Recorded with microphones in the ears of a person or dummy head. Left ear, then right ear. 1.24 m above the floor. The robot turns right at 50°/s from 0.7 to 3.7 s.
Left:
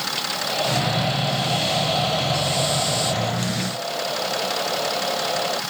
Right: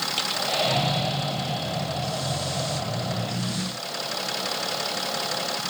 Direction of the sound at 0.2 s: 10° right.